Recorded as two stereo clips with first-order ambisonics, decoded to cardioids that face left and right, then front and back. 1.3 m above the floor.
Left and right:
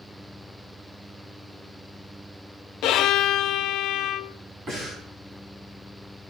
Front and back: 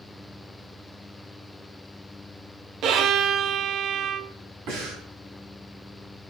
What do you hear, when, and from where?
2.8 s a violin: 130° left, 0.6 m
4.7 s breathing: 150° right, 3.5 m